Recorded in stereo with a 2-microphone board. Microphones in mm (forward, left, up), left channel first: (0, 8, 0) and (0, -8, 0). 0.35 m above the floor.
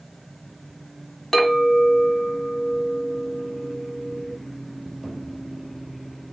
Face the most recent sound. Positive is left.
turn(degrees=30)  # may be behind; listen again after turning